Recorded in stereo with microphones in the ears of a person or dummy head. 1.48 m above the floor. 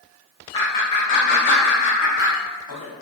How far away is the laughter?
About 0.8 m.